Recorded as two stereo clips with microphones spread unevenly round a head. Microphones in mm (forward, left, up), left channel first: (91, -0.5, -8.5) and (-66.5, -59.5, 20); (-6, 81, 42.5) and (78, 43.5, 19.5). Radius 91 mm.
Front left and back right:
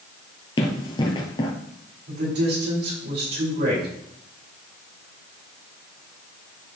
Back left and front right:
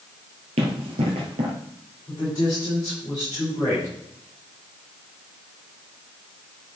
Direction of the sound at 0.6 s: 40° right.